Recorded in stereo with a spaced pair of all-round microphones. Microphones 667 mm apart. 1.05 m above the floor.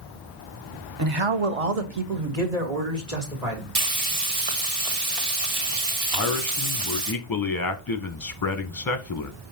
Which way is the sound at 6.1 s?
35° left (ahead or behind).